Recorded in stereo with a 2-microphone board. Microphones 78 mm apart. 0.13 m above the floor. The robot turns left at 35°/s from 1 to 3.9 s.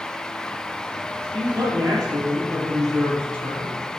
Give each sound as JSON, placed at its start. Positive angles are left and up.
{"t": 1.3, "sound": "a man speaking", "azimuth_deg": -80, "distance_m": 3.0}